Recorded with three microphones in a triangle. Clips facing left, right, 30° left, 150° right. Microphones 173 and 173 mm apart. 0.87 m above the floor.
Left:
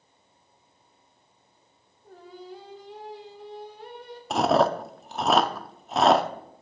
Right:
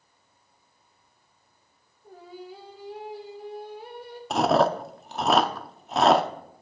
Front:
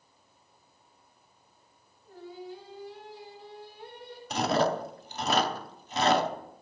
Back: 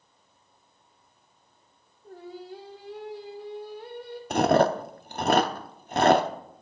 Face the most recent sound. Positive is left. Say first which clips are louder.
# even, back 6 dB
turn(degrees=180)